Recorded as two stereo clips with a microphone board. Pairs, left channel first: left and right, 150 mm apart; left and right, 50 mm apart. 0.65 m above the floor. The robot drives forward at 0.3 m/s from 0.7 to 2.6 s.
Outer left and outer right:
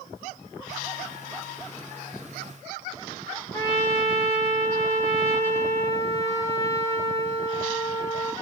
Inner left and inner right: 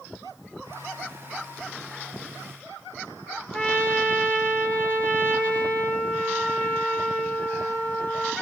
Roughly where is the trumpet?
Centre.